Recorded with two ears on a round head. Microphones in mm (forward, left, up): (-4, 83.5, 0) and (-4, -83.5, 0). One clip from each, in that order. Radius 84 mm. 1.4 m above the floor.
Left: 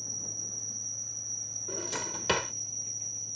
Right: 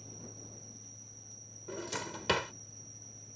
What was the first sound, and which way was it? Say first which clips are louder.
An insect: left 13 dB; 85° left.